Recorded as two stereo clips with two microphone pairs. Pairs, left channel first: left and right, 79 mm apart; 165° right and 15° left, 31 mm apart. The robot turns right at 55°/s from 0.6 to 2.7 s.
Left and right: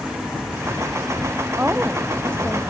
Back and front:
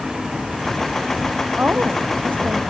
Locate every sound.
1.6 s a woman speaking: 30° right; by 2.6 s 30° left